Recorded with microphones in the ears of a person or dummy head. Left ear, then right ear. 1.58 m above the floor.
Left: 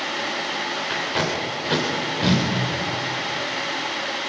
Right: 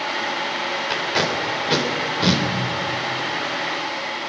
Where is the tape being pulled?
20° right (ahead or behind), 2.5 m.